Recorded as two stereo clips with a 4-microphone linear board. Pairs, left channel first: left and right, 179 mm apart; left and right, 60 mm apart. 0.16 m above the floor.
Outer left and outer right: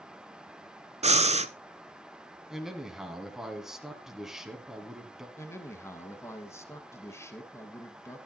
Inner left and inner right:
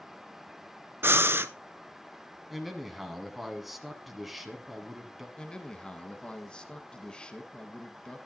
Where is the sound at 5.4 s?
15° left (ahead or behind), 1.2 m.